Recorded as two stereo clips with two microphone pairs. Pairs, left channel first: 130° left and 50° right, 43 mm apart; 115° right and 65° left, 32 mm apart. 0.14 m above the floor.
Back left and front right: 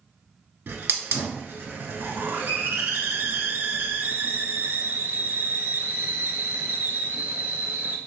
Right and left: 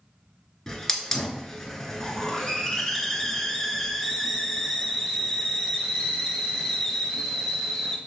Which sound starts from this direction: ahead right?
A hiss, at 0.7 s.